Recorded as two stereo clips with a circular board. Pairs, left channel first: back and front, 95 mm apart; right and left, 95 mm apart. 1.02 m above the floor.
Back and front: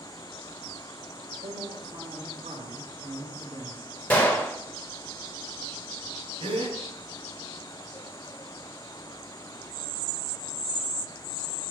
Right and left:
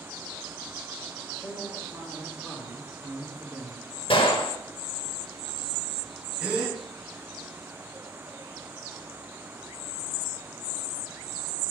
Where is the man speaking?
15° right, 3.5 m; by 3.9 s 5° left, 2.5 m.